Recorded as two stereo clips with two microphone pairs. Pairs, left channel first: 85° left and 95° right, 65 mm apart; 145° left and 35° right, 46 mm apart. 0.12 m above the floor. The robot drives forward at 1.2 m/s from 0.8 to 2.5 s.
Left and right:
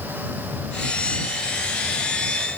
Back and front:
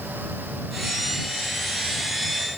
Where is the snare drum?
I don't hear a snare drum.